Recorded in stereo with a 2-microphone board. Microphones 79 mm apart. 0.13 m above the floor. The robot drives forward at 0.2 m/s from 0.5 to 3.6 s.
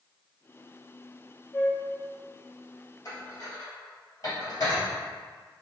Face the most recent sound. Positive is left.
turn(degrees=45)  # may be behind; listen again after turning